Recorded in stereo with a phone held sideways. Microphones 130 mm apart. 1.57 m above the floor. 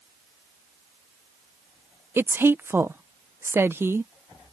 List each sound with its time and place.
2.2 s a woman speaking: 20° right (ahead or behind)